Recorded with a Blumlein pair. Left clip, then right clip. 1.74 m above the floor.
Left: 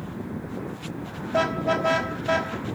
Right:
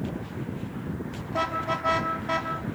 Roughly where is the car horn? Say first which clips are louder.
Left 4 dB; ahead left.